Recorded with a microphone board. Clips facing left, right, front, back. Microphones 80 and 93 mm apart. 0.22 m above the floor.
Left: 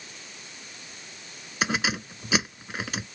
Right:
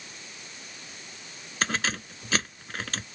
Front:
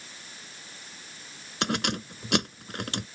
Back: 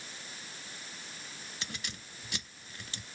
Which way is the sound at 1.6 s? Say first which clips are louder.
Left 2 dB, front 18 dB; 10° left.